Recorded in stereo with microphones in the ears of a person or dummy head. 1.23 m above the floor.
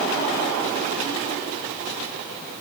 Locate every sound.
Only background noise.